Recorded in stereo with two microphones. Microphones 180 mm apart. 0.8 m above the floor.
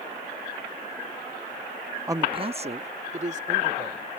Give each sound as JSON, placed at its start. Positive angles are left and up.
{"t": 2.1, "sound": "a man speaking", "side_deg": -15}